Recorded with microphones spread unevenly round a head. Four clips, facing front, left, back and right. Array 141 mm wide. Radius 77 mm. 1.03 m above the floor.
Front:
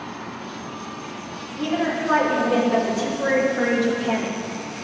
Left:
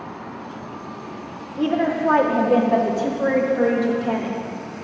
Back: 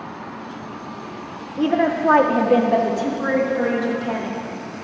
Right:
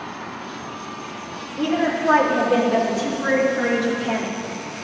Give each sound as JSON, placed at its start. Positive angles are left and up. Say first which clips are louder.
{"t": 1.6, "sound": "a woman speaking", "louder": "left 1 dB, back 5 dB", "azimuth_deg": 165, "distance_m": 0.9}